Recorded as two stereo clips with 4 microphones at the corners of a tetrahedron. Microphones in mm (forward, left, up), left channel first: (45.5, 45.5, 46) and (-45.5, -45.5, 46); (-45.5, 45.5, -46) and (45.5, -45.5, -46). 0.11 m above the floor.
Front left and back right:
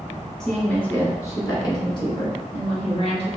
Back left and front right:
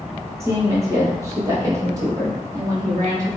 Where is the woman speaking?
35° right, 1.3 m; by 3.3 s 15° left, 2.5 m.